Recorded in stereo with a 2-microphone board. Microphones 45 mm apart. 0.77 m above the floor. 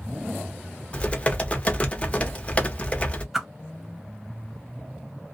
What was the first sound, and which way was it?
Typing on a keyboard, 25° left (ahead or behind).